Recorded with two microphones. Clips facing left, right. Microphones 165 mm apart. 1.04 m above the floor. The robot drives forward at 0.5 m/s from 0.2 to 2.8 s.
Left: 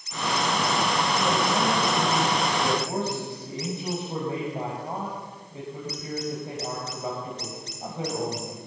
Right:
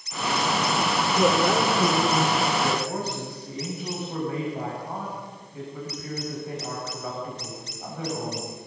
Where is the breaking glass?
I don't hear breaking glass.